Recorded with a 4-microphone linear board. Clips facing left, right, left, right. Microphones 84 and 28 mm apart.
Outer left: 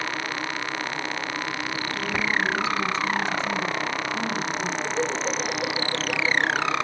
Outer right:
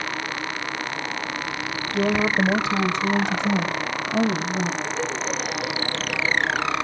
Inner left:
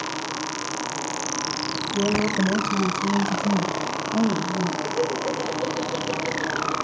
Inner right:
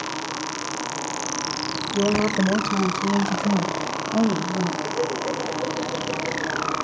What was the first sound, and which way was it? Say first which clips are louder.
A woman speaking: outer right 7 dB, inner right 2 dB; 65° right (ahead or behind).